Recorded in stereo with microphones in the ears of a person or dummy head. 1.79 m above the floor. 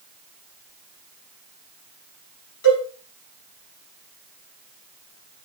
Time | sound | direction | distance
2.6 | a cowbell | 70° left (ahead or behind) | 8.5 m